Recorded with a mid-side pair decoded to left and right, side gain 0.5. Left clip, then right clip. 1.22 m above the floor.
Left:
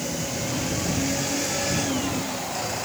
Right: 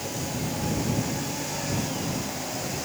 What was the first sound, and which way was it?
Only background noise.